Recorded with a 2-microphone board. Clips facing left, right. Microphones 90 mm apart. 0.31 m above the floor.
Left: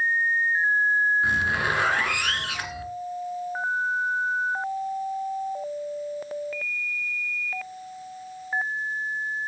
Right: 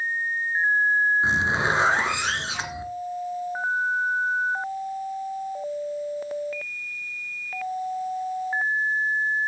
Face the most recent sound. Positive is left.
turn(degrees=-25)  # may be behind; listen again after turning